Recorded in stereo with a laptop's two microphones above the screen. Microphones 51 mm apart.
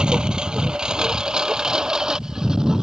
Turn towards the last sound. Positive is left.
turn(degrees=-10)  # may be behind; listen again after turning